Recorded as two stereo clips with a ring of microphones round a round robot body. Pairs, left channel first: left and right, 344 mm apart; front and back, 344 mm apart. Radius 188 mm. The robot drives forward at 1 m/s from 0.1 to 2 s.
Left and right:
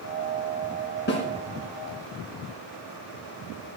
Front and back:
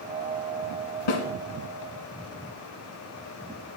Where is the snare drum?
25° left, 2.5 m; by 1.2 s 30° left, 2.5 m.